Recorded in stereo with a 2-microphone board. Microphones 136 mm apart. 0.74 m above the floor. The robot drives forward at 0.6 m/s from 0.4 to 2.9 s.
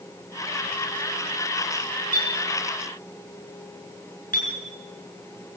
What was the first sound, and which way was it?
A clink, 85° left.